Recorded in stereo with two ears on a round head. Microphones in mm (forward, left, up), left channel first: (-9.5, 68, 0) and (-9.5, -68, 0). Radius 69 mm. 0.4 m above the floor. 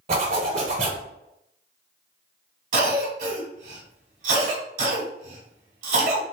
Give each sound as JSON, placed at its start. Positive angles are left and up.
{"t": 0.1, "sound": "a zipper", "side_deg": -45, "distance_m": 1.4}
{"t": 2.7, "sound": "a cough", "side_deg": -50, "distance_m": 1.4}